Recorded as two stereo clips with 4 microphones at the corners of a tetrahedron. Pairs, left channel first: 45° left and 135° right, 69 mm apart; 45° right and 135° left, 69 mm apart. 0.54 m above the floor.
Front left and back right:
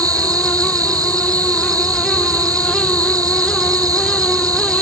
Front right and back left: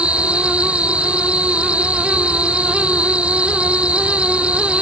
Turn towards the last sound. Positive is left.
turn(degrees=-155)